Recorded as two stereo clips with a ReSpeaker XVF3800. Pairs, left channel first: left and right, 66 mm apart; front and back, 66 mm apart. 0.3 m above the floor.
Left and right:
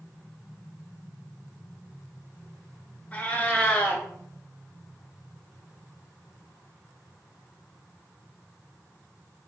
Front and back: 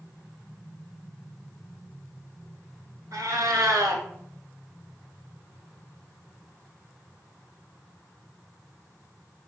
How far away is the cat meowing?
About 0.6 m.